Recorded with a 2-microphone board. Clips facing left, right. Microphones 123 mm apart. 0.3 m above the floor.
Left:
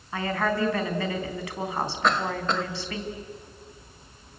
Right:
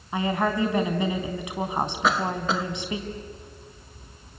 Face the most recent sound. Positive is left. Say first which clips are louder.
# even
turn(degrees=-5)  # may be behind; listen again after turning